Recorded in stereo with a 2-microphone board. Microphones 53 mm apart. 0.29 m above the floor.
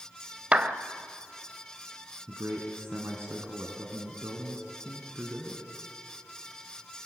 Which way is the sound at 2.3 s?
50° right (ahead or behind).